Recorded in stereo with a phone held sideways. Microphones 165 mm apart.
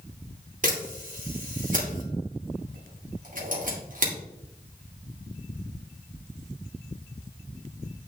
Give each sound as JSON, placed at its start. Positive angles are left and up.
{"t": 0.6, "sound": "a camera shutter", "side_deg": -55, "distance_m": 2.5}